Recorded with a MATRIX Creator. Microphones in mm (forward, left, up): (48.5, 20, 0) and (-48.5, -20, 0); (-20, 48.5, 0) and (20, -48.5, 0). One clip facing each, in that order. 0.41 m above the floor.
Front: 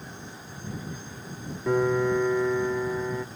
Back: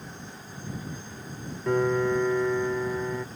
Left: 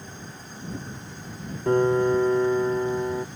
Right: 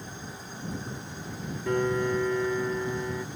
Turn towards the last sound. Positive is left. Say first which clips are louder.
# front 1 dB, left 6 dB
turn(degrees=105)